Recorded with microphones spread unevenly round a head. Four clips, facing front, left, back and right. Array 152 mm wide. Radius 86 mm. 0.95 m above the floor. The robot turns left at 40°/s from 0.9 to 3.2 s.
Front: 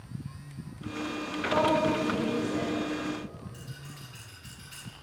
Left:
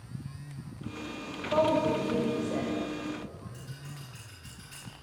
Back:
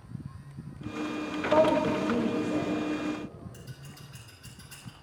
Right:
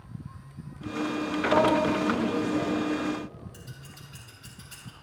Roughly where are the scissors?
Behind.